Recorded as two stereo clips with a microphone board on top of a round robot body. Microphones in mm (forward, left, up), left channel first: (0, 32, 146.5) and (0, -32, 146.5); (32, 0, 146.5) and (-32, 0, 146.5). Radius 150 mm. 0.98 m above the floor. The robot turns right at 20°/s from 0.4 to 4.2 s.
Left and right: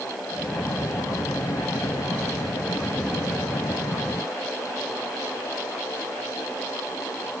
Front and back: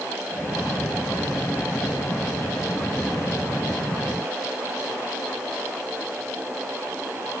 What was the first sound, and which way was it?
Only background noise.